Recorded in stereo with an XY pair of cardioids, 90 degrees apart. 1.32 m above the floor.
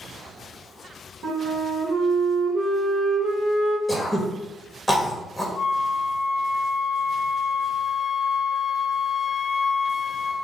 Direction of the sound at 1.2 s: 70° right.